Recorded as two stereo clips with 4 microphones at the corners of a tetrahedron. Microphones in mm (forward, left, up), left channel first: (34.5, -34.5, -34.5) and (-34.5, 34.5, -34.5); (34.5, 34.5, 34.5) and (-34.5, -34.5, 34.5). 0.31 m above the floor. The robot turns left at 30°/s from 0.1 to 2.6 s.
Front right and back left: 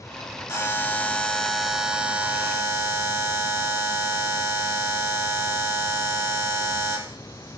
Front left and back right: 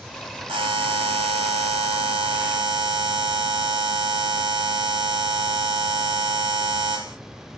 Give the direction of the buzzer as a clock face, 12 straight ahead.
4 o'clock.